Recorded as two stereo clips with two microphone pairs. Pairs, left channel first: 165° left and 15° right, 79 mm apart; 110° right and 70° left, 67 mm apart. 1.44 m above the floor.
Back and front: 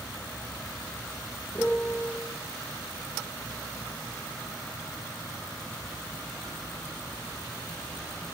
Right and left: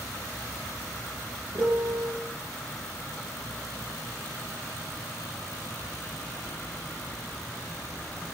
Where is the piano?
90° left, 1.1 m.